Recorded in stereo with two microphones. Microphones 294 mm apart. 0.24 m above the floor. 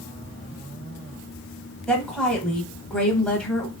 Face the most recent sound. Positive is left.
turn(degrees=5)  # may be behind; listen again after turning